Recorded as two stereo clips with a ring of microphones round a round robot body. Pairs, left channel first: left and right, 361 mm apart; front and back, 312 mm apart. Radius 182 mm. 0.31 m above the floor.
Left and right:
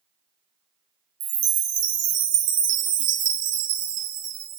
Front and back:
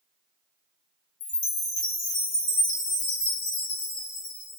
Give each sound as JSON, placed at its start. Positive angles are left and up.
{"t": 1.2, "sound": "a chime", "azimuth_deg": -55, "distance_m": 0.8}